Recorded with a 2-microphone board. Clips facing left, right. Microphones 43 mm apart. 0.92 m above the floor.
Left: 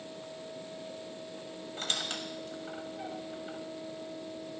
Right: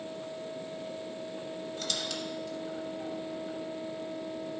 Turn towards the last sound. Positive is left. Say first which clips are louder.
# left 2 dB
turn(degrees=40)  # may be behind; listen again after turning